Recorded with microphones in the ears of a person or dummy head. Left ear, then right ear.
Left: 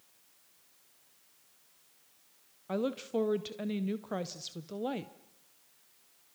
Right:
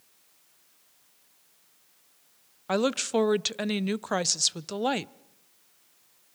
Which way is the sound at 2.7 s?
45° right (ahead or behind).